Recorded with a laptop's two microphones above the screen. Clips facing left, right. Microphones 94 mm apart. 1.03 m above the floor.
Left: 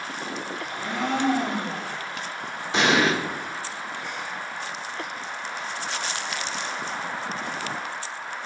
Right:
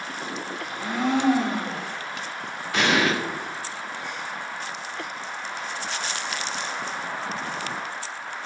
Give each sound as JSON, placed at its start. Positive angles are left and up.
{"t": 0.6, "sound": "a blender", "side_deg": -10, "distance_m": 0.8}
{"t": 2.7, "sound": "an explosion", "side_deg": 25, "distance_m": 0.7}